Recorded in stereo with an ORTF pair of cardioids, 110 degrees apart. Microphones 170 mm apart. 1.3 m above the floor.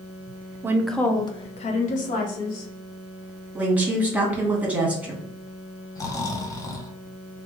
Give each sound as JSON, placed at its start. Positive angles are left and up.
{"t": 0.6, "sound": "a woman speaking", "azimuth_deg": -20, "distance_m": 0.5}
{"t": 3.5, "sound": "a woman speaking", "azimuth_deg": -10, "distance_m": 1.3}
{"t": 6.0, "sound": "snoring", "azimuth_deg": 20, "distance_m": 0.5}